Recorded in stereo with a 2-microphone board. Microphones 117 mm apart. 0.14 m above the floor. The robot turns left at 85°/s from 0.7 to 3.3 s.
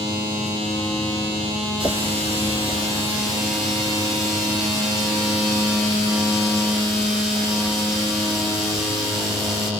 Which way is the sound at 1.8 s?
50° right.